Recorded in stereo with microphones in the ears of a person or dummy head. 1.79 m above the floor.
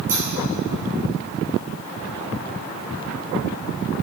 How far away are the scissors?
About 2 m.